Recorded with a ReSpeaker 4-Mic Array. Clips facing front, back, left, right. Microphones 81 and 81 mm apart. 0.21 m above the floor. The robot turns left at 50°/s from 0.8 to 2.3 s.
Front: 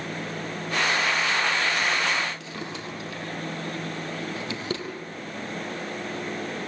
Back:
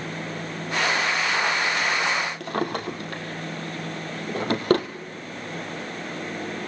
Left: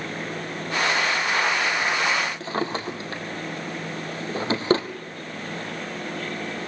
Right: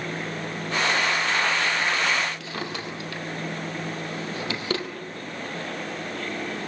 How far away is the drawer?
About 2.5 m.